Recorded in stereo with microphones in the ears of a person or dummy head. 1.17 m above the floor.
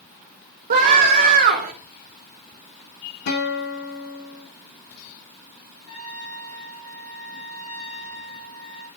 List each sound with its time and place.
0.7 s a scream: 45° right (ahead or behind), 4 m
3.3 s a guitar: 55° left (ahead or behind), 3.5 m
5.9 s a trumpet: 80° left, 6 m